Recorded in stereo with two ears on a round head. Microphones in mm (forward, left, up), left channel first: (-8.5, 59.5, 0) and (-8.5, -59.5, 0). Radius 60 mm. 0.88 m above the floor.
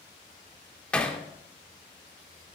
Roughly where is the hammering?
Centre.